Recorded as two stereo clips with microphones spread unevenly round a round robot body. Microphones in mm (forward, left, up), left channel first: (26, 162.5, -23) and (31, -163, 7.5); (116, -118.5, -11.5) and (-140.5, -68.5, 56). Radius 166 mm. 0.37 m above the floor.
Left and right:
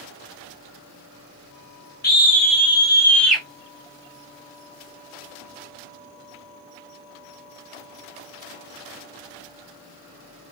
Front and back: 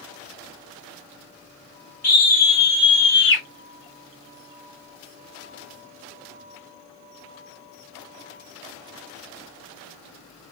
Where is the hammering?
No hammering in this recording.